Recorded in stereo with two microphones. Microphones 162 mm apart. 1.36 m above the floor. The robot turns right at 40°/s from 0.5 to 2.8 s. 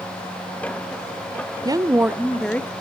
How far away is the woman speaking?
About 0.6 m.